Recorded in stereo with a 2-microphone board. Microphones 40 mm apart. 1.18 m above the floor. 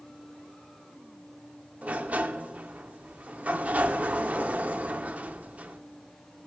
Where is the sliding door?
35° right (ahead or behind), 0.7 m.